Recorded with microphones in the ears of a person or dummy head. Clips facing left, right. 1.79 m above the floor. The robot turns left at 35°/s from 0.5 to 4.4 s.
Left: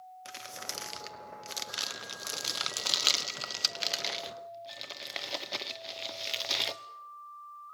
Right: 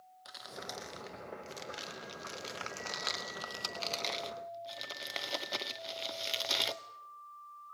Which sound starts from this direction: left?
Crumpling, at 0.2 s.